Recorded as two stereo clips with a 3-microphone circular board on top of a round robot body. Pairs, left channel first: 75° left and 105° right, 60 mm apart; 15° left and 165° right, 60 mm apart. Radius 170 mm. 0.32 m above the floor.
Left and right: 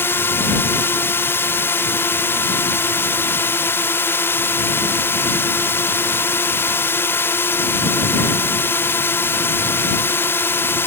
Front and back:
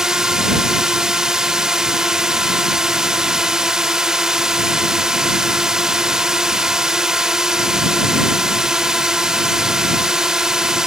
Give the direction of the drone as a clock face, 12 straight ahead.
8 o'clock.